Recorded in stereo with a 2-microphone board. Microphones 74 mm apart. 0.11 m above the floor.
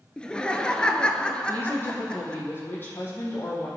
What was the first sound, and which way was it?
Laughter, 15° left (ahead or behind).